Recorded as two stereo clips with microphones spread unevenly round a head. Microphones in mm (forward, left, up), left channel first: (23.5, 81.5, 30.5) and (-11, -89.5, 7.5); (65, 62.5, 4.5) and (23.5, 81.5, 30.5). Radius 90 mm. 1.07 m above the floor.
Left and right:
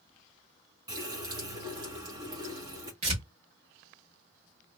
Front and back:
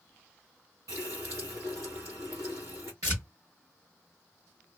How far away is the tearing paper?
About 1.6 m.